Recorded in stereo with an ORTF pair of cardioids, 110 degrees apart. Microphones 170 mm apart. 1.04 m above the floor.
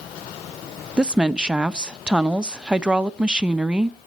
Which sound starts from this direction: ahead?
A woman speaking, at 1.0 s.